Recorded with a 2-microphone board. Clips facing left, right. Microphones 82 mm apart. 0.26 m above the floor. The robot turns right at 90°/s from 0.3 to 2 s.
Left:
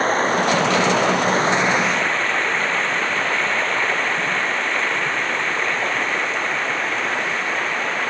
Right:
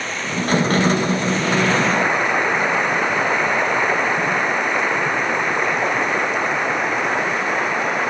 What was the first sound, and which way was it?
Running water, 40° left.